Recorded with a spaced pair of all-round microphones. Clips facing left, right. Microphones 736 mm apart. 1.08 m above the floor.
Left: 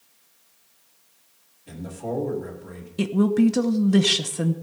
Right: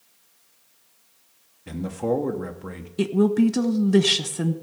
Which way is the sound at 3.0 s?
5° left (ahead or behind).